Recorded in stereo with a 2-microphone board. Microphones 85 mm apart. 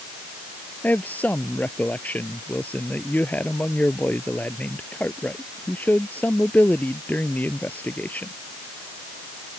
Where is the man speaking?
20° left (ahead or behind).